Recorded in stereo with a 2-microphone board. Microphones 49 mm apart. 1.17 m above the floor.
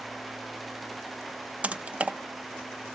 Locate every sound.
1.6 s typing on a keyboard: 25° right (ahead or behind), 0.6 m